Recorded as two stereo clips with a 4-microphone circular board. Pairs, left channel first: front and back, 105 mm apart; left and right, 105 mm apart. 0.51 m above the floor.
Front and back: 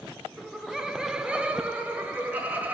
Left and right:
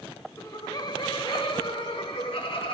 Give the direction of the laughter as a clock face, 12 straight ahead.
9 o'clock.